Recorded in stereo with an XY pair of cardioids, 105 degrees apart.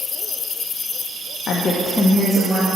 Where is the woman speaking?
60° left, 0.7 m; by 2.7 s 5° left, 1.8 m.